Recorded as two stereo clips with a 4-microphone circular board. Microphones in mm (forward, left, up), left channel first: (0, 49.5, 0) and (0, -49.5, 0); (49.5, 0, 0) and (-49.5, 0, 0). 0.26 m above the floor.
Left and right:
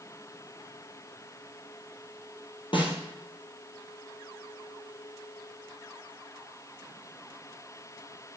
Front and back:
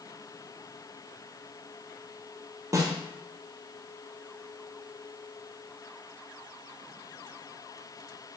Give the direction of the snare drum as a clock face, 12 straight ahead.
8 o'clock.